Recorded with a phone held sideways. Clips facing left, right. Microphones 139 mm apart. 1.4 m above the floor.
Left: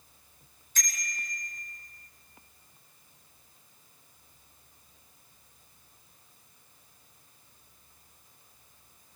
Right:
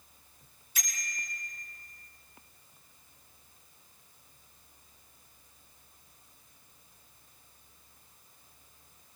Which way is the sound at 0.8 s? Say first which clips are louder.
Left 2 dB; 10° right (ahead or behind).